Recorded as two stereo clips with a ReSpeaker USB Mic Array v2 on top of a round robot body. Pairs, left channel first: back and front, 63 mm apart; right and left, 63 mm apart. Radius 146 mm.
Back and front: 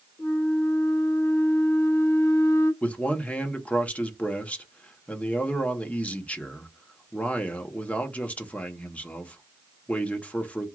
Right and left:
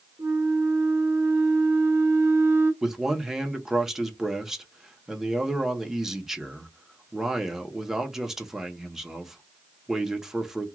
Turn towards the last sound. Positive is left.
turn(degrees=160)